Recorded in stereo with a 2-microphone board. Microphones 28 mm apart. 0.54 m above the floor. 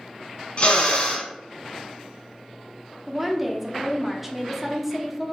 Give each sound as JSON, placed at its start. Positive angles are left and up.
{"t": 0.6, "sound": "a drill", "side_deg": 45, "distance_m": 2.0}
{"t": 3.1, "sound": "a woman speaking", "side_deg": -5, "distance_m": 0.7}